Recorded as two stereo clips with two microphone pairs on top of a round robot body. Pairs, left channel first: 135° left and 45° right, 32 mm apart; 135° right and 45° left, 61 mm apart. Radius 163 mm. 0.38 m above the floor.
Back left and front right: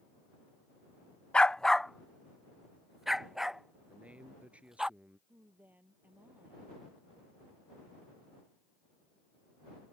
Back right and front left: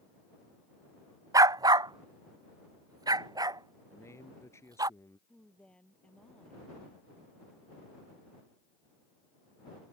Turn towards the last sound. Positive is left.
turn(degrees=-60)